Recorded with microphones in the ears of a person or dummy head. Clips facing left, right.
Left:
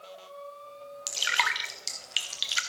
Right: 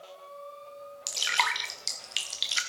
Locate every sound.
1.1 s dripping: centre (ahead or behind), 0.5 m